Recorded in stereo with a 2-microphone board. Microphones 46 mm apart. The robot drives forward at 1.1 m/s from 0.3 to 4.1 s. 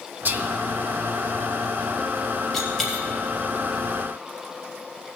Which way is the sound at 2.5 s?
5° left (ahead or behind).